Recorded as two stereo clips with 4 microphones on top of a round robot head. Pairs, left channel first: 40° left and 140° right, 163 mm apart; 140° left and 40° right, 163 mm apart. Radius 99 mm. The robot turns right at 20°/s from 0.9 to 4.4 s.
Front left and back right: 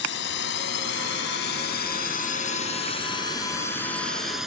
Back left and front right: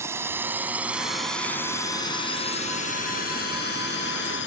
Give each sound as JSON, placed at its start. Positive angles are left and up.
{"t": 0.0, "sound": "a drone", "azimuth_deg": 35}